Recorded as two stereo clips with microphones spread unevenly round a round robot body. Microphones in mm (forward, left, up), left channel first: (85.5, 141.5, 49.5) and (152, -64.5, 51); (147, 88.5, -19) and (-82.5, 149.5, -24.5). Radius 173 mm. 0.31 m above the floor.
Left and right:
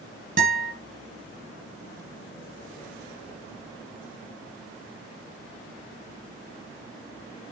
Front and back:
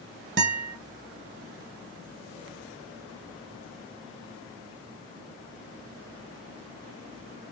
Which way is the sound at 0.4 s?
135° right.